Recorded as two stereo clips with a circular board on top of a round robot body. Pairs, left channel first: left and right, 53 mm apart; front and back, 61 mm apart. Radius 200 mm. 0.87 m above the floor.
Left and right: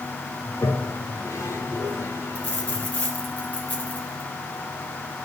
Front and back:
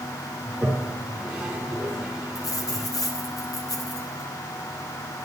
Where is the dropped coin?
25° left, 4.5 m.